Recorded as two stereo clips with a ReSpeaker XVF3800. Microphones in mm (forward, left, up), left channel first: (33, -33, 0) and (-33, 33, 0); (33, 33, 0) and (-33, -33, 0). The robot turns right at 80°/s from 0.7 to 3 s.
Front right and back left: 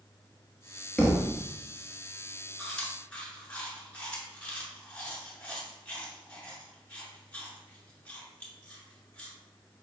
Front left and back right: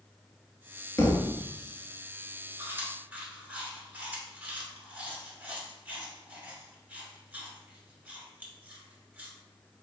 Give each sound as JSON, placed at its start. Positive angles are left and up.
{"t": 1.0, "sound": "a thud", "azimuth_deg": 25, "distance_m": 0.8}
{"t": 2.6, "sound": "chewing", "azimuth_deg": -125, "distance_m": 1.3}